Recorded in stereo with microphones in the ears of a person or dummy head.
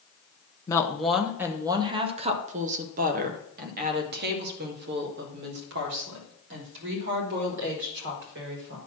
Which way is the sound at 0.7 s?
15° left (ahead or behind).